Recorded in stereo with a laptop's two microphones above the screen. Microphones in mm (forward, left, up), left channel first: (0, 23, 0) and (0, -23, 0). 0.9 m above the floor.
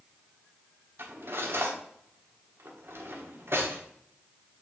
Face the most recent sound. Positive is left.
turn(degrees=-60)  # may be behind; listen again after turning